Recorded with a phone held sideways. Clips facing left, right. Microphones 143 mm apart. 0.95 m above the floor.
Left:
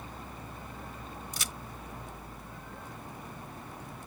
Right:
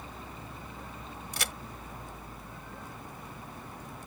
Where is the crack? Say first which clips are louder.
Right 3 dB; 65° right (ahead or behind).